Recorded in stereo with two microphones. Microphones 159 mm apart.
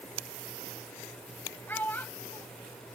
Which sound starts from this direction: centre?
A child speaking, at 1.7 s.